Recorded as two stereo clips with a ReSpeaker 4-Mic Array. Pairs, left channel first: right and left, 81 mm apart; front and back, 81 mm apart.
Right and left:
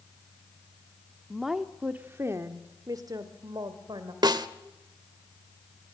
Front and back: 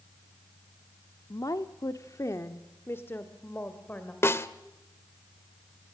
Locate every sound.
1.3 s a woman speaking: 5° right, 1.2 m; by 4.1 s 70° left, 2.5 m
4.2 s a snare drum: 55° left, 1.0 m